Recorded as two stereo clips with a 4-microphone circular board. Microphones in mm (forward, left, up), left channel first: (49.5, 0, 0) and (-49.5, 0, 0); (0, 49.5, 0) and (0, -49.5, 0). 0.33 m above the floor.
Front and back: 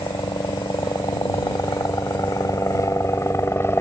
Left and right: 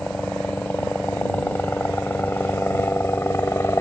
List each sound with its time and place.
0.0 s a helicopter: 15° left; by 3.8 s 45° left